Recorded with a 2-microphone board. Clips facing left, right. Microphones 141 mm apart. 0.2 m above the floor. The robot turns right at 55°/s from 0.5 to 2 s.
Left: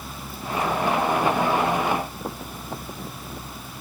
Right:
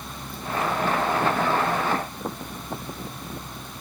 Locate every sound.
Only background noise.